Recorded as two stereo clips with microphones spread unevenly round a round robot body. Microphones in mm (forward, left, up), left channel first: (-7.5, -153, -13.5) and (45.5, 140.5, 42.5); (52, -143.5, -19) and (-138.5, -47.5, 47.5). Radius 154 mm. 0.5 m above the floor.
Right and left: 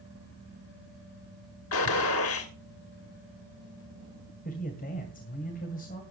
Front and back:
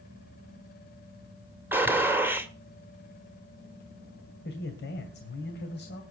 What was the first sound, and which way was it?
A gunshot, 120° right.